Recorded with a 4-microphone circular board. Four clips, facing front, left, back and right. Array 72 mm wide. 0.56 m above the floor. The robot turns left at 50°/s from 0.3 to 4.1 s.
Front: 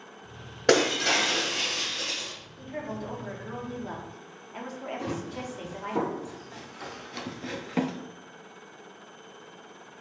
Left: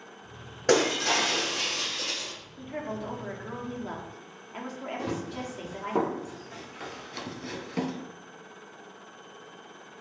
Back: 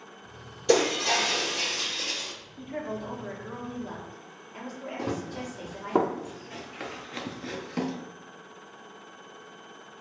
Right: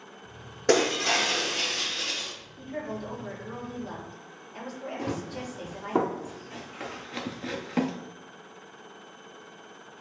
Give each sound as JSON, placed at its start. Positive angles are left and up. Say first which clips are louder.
{"t": 0.7, "sound": "breaking glass", "louder": "even, front 1 dB", "azimuth_deg": 0, "distance_m": 2.5}
{"t": 2.6, "sound": "a woman speaking", "louder": "even, back 1 dB", "azimuth_deg": 150, "distance_m": 1.1}
{"t": 5.0, "sound": "running footsteps", "louder": "right 1 dB, back 4 dB", "azimuth_deg": -175, "distance_m": 1.9}